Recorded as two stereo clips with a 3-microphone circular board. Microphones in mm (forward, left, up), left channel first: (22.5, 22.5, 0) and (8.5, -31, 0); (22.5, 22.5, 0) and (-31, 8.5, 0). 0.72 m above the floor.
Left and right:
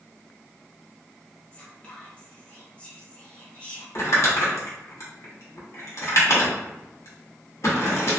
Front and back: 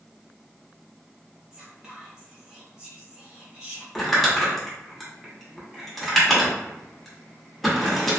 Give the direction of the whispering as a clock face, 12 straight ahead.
8 o'clock.